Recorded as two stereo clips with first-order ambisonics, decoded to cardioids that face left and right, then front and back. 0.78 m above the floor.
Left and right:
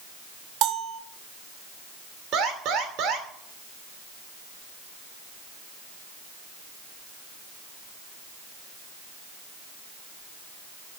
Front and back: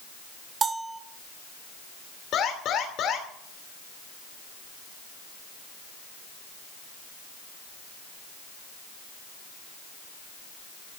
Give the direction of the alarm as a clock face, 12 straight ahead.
2 o'clock.